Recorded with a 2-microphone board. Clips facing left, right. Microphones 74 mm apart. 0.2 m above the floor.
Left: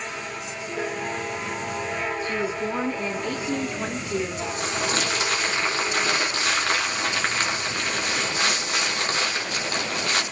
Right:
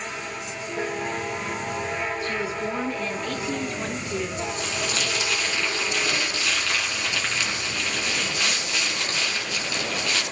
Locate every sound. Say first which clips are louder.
2.2 s a woman speaking: left 1 dB; 15° left (ahead or behind), 2 m
4.4 s crumpling: left 2 dB; 45° left (ahead or behind), 2.5 m